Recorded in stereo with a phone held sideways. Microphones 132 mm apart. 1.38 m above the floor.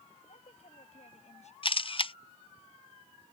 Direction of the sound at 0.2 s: 55° left (ahead or behind).